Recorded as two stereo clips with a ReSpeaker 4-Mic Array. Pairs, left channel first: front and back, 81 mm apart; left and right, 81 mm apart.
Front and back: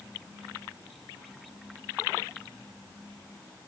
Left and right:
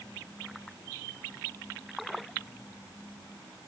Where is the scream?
No scream in this recording.